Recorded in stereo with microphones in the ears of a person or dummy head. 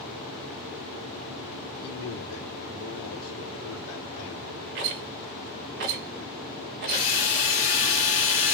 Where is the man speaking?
75° left (ahead or behind), 1.3 m.